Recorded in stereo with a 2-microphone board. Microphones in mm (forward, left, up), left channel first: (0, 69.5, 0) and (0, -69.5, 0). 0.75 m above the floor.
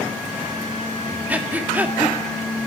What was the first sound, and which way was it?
Breathing, 10° right (ahead or behind).